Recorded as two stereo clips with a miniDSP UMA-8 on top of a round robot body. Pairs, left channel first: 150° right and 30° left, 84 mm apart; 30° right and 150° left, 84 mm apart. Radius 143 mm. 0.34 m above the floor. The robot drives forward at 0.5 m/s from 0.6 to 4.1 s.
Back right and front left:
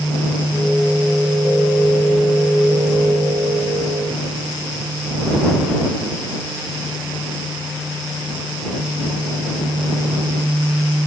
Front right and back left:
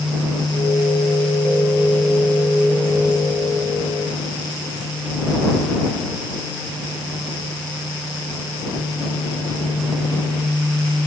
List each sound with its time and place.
Only background noise.